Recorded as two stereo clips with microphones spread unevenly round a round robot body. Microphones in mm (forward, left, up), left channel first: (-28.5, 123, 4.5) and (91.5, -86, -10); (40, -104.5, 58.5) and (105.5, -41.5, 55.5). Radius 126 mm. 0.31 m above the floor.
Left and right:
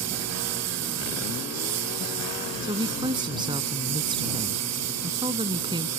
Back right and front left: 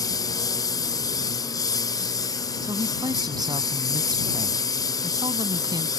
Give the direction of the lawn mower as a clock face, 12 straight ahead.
3 o'clock.